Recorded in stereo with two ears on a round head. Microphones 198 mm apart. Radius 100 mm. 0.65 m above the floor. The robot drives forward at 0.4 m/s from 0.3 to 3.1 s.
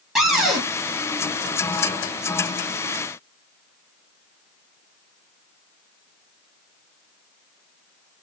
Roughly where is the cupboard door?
Centre.